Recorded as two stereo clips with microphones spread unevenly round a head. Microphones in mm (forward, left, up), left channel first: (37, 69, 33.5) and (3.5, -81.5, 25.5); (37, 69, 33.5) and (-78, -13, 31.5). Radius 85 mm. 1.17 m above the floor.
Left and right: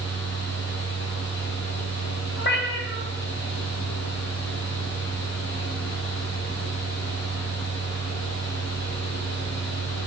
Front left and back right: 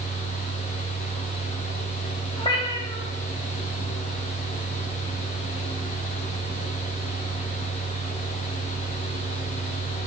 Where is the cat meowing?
85° left, 1.7 m.